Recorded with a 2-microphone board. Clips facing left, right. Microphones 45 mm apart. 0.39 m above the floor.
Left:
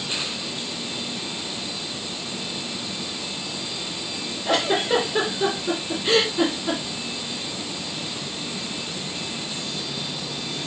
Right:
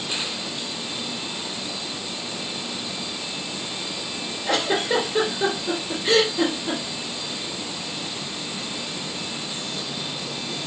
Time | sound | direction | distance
4.5 | a giggle | 15° left (ahead or behind) | 2.0 m